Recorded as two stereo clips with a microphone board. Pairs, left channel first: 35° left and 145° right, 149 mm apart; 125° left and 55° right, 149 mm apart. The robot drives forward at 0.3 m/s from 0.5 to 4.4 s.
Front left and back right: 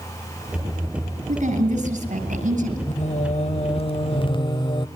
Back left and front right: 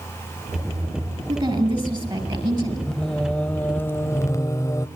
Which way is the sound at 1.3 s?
110° right.